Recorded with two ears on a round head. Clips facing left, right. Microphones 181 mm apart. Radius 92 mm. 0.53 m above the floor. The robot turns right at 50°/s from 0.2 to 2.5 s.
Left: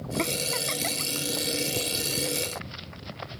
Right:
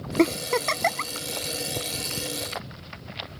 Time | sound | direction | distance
0.2 | a giggle | 50° right (ahead or behind) | ?